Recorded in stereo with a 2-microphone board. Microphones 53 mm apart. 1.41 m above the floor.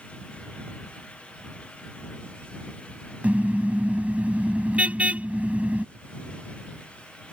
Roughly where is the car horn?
Right.